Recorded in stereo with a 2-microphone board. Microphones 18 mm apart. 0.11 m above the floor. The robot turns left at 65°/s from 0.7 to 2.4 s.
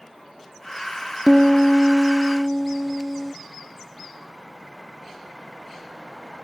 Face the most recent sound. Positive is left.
turn(degrees=170)